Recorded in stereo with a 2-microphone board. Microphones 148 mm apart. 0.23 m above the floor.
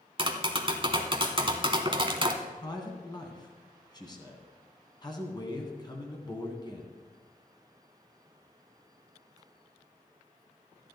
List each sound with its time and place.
0.2 s tapping: 35° right (ahead or behind), 1.2 m
2.4 s a man speaking: 30° left (ahead or behind), 2.5 m